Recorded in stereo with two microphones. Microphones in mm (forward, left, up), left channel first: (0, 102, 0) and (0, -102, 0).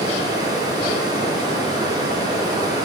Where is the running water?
20° right (ahead or behind), 2.5 m.